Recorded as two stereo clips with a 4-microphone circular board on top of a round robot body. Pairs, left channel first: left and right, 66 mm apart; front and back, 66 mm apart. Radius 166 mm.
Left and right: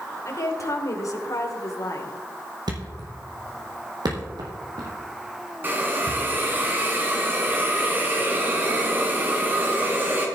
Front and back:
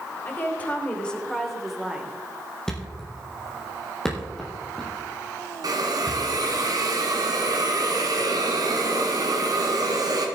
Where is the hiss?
150° right, 1.9 m.